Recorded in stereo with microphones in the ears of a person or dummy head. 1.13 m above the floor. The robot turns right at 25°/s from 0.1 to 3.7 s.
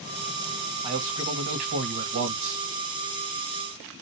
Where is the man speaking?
145° right, 1.3 m; by 2.6 s 100° right, 1.3 m.